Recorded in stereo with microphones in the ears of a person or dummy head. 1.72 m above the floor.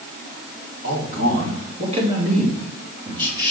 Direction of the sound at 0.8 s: 45° right (ahead or behind).